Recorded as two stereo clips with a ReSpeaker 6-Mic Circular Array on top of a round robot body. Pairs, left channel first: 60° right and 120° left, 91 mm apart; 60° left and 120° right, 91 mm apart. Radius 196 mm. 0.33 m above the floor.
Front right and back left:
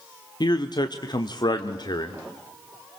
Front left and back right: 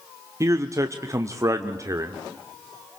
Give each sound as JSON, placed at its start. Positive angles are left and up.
{"t": 0.4, "sound": "a man speaking", "azimuth_deg": -75, "distance_m": 1.3}